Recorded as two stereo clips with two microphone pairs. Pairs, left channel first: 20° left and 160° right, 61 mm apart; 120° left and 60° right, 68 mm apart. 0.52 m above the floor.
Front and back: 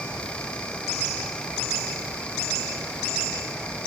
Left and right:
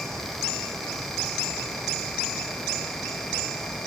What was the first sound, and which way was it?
Only background noise.